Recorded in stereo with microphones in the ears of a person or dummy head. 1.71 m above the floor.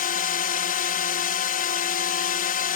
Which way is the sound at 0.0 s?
40° left (ahead or behind).